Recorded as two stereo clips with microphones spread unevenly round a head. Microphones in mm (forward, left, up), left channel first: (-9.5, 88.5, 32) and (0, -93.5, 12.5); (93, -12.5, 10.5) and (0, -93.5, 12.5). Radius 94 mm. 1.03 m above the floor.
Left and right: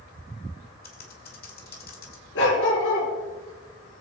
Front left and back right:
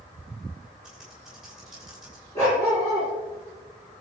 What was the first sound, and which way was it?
Typing on a keyboard, 135° left.